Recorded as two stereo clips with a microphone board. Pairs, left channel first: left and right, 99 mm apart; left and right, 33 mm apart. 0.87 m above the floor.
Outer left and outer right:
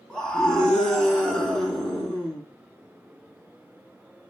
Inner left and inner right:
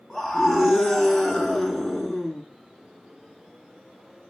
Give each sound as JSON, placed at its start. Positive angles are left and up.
{"t": 0.1, "sound": "a scream", "side_deg": 5, "distance_m": 7.5}